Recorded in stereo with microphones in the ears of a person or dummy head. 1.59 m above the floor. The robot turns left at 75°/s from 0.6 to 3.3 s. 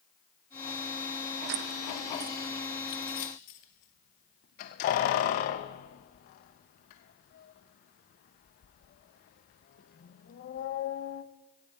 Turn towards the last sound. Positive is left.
turn(degrees=40)  # may be behind; listen again after turning